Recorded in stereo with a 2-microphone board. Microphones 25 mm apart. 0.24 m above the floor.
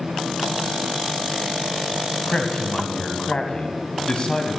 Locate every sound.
2.3 s a man speaking: 40° left (ahead or behind), 1.2 m